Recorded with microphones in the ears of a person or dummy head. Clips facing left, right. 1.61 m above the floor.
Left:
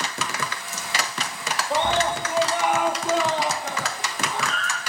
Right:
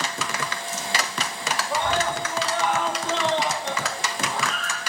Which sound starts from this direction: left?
A scream, at 1.7 s.